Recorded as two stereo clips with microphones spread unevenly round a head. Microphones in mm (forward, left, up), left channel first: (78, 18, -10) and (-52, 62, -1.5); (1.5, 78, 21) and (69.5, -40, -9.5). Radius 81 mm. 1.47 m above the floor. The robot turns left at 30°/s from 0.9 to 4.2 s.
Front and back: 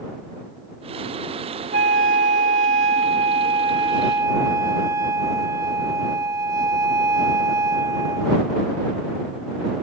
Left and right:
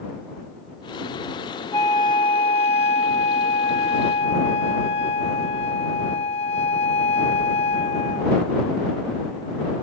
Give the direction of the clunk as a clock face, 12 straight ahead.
I don't hear a clunk.